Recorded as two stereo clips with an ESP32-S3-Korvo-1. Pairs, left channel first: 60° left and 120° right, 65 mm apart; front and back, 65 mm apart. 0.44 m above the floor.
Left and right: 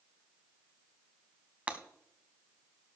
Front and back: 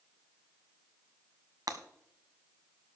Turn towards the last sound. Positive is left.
turn(degrees=170)